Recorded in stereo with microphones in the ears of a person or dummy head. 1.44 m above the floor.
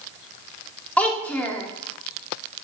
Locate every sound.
1.0 s a child speaking: 5° left (ahead or behind), 2 m